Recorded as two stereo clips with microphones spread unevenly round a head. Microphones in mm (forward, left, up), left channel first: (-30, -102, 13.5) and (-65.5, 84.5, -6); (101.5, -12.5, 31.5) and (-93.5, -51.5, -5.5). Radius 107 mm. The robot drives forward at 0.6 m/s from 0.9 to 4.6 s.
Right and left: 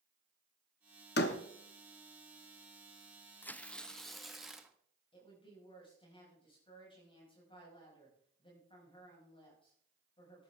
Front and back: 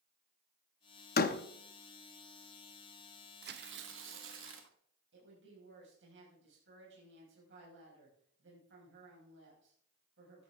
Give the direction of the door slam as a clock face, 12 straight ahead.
1 o'clock.